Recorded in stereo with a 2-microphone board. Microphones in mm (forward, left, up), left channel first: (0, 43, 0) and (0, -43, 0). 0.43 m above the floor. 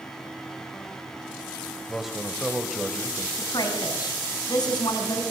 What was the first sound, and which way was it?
A man speaking, centre (ahead or behind).